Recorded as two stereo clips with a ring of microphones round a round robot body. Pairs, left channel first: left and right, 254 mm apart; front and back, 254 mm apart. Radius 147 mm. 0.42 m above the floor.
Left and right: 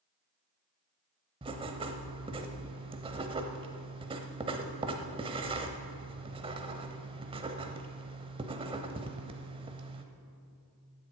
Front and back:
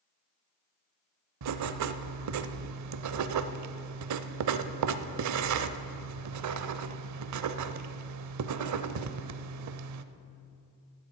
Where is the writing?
160° right, 0.6 m.